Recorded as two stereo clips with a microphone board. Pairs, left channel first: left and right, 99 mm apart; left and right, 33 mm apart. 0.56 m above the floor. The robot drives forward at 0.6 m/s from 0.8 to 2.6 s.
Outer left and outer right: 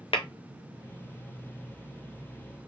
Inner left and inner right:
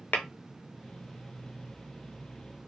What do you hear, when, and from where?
0.1 s tapping: 70° left (ahead or behind), 0.6 m